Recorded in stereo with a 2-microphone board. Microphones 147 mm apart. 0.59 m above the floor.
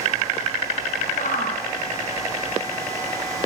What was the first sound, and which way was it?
A shout, 70° left (ahead or behind).